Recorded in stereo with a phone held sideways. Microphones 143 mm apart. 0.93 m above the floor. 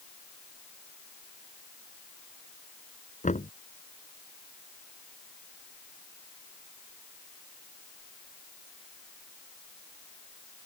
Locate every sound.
3.2 s knocking: 60° left (ahead or behind)